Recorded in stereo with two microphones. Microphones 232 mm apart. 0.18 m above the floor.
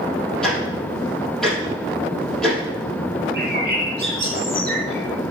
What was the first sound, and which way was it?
Ticking, centre (ahead or behind).